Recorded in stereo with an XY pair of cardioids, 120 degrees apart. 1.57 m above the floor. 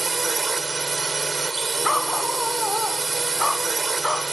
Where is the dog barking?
10° left.